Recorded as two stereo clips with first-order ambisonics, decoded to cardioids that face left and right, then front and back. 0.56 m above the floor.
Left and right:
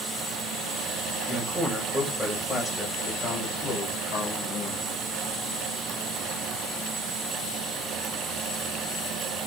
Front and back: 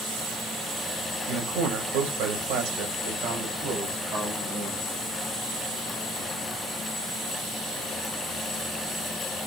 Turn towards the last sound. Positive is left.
turn(degrees=120)